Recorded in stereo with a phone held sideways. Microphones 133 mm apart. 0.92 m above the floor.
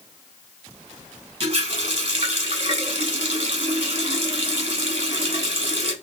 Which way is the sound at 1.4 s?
45° right (ahead or behind).